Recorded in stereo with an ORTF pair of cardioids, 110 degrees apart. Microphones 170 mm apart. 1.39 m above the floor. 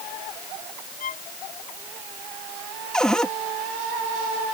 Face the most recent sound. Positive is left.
turn(degrees=5)